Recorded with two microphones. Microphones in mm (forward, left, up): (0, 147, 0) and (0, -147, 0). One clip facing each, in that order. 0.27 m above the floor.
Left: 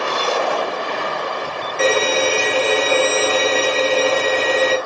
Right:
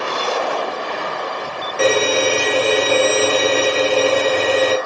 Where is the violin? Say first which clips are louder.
Right 2 dB; 50° right (ahead or behind), 3.5 m.